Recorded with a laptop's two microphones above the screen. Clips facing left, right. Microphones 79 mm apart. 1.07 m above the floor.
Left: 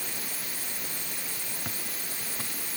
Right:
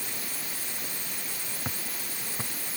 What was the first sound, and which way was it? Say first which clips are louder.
Footsteps: right 1 dB; 20° right (ahead or behind).